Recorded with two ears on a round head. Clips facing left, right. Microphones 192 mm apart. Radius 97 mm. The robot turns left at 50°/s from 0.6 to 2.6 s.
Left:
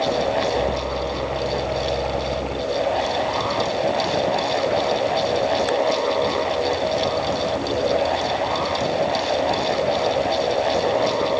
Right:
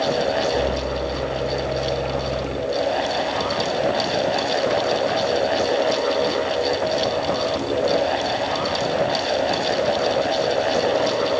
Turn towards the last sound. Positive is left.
No sound to turn to.